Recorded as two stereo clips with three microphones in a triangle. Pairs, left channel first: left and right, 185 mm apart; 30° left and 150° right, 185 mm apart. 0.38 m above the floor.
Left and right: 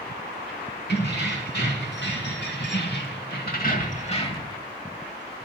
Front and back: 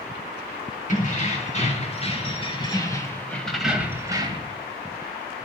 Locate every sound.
0.9 s keys jangling: 70° left, 2.5 m; by 4.5 s 155° left, 1.1 m